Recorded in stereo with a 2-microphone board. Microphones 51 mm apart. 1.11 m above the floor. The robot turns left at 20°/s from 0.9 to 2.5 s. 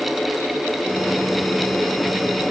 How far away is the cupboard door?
No cupboard door in this recording.